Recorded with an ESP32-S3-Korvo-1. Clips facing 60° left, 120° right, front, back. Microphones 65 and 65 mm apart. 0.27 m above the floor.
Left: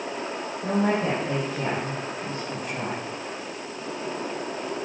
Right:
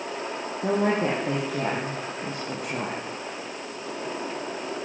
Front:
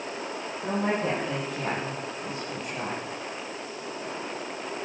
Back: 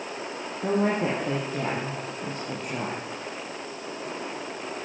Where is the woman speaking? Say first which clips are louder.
Right 1 dB, back 3 dB; 135° right, 6.5 m; by 3.0 s 145° right, 6.5 m.